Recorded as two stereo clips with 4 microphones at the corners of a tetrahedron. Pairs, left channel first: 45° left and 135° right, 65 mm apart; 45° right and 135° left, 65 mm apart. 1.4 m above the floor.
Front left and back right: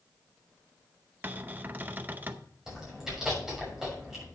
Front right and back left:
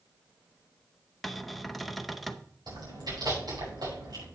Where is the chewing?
140° left, 6 m.